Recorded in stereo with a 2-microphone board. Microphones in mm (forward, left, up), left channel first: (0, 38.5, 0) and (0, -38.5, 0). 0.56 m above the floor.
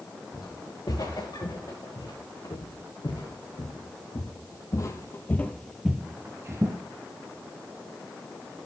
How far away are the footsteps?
About 4 m.